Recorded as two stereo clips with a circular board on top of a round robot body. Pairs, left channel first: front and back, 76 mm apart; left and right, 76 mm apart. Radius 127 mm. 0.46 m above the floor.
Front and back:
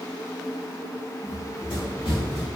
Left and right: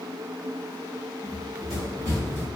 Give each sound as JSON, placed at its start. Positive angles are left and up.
{"t": 1.2, "sound": "running footsteps", "azimuth_deg": -45, "distance_m": 0.8}